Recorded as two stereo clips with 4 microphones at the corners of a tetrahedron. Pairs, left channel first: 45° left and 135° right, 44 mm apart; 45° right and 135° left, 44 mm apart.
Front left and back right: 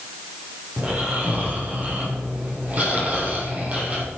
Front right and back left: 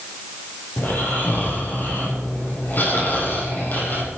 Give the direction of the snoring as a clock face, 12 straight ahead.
3 o'clock.